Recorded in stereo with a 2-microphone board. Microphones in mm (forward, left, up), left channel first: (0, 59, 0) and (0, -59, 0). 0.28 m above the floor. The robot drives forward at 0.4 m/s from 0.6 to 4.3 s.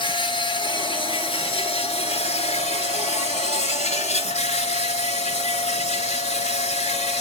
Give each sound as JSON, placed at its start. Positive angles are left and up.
{"t": 0.0, "sound": "an insect", "side_deg": 45, "distance_m": 1.7}